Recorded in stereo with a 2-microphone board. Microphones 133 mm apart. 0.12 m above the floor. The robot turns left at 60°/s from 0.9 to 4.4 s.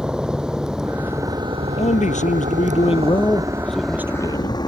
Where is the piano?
No piano in this recording.